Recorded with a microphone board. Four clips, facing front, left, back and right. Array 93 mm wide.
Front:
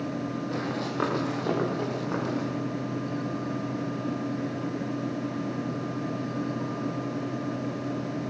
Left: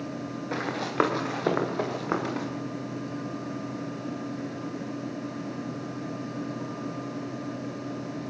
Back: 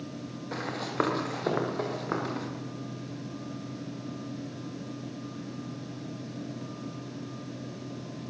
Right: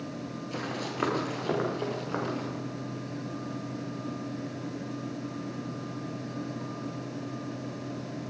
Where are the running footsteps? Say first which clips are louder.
Left 8 dB, back 3 dB; 100° left, 7 m; by 2.5 s 110° left, 8 m.